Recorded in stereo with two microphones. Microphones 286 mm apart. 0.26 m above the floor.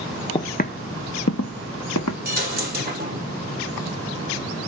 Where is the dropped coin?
30° right (ahead or behind), 3 m.